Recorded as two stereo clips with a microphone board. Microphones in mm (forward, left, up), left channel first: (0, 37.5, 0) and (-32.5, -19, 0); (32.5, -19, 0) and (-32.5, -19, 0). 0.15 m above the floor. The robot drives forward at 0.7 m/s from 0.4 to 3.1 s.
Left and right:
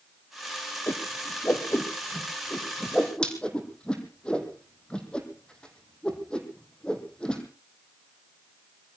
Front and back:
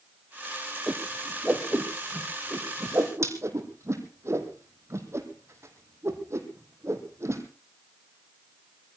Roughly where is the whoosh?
Left.